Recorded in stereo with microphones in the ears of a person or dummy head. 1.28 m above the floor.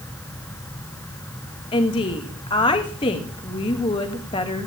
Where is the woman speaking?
20° left (ahead or behind), 2.5 m.